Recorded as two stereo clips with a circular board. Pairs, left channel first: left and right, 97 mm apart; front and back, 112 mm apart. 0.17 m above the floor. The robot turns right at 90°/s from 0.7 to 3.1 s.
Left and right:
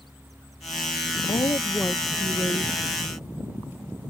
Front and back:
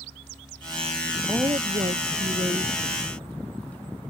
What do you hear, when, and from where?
1.3 s a woman speaking: 115° left; by 3.0 s 90° right